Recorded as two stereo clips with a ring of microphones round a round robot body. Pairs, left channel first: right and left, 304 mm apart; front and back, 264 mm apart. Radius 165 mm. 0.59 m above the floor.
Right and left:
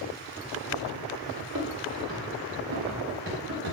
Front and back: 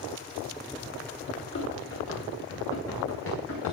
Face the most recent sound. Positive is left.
turn(degrees=35)